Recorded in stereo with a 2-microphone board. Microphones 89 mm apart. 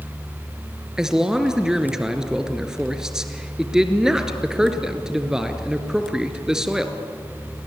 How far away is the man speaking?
About 2 m.